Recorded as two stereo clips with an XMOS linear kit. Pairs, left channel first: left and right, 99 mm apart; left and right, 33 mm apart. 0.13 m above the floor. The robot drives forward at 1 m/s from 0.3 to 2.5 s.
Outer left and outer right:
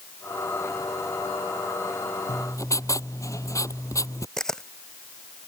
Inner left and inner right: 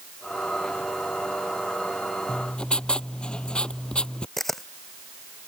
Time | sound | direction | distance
2.3 | writing | 40° left (ahead or behind) | ?
4.4 | a camera shutter | 5° left (ahead or behind) | ?